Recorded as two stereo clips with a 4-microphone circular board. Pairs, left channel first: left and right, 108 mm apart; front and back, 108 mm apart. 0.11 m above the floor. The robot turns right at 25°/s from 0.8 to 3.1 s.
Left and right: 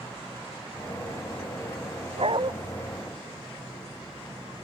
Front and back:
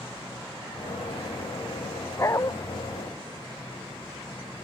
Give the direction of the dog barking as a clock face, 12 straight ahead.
2 o'clock.